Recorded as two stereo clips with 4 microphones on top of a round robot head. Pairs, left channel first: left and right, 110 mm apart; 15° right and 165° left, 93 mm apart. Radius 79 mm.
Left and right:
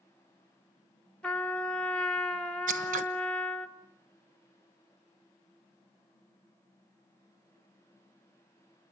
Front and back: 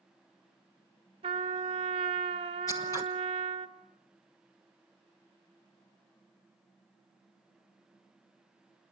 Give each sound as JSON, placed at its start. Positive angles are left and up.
{"t": 1.2, "sound": "a trumpet", "azimuth_deg": 170, "distance_m": 1.1}
{"t": 2.7, "sound": "scissors", "azimuth_deg": -80, "distance_m": 1.2}